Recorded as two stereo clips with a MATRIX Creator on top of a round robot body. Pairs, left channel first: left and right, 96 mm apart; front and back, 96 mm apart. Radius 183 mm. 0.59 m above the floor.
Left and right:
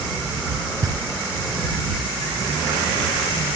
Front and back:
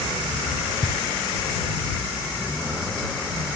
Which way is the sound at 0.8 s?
35° right.